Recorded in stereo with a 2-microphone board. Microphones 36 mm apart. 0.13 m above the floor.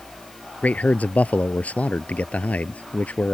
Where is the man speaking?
45° left (ahead or behind).